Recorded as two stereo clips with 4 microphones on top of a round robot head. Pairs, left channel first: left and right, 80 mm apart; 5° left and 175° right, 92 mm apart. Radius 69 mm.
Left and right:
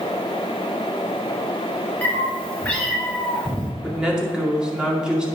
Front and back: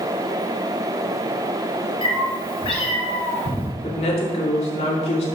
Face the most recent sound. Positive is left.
turn(degrees=-10)